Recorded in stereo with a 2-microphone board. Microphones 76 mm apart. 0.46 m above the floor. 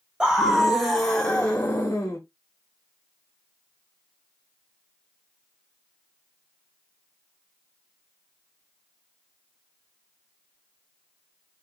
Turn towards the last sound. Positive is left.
turn(degrees=30)  # may be behind; listen again after turning